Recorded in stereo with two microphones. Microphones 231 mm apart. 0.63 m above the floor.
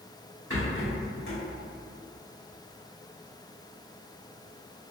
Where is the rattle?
60° left (ahead or behind), 1.2 m.